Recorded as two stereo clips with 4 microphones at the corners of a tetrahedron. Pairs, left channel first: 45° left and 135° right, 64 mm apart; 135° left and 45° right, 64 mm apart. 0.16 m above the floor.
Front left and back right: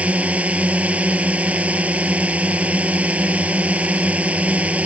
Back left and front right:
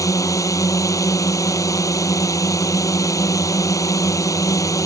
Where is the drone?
160° left.